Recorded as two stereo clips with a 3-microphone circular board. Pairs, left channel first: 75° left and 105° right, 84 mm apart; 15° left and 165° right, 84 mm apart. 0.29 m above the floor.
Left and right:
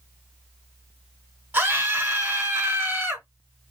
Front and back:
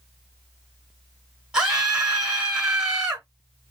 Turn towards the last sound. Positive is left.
turn(degrees=-115)